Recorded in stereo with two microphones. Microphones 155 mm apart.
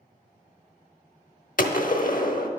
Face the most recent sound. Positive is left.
turn(degrees=60)  # may be behind; listen again after turning